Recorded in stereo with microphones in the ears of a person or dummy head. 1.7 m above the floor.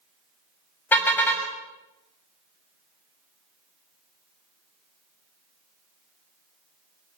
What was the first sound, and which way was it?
A car horn, 10° left (ahead or behind).